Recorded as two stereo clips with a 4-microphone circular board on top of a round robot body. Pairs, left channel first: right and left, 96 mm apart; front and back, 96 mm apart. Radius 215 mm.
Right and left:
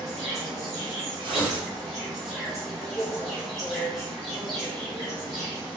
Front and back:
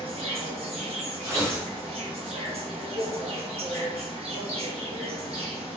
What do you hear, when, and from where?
0.0 s an insect: 175° left, 1.0 m
1.2 s tearing paper: 125° left, 0.9 m